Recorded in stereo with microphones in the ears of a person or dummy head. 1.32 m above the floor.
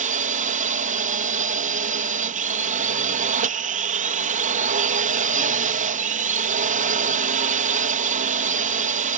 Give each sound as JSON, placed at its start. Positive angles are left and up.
{"t": 0.0, "sound": "a drone", "side_deg": -35}